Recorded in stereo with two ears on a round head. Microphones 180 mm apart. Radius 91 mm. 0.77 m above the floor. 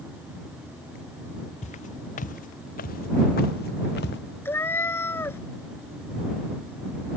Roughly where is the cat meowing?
Centre.